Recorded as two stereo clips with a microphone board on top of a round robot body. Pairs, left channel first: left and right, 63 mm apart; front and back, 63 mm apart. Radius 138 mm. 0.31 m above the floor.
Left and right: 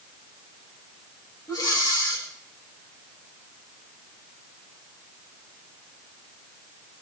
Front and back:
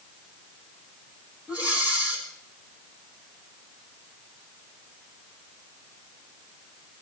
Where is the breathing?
110° left, 4.5 m.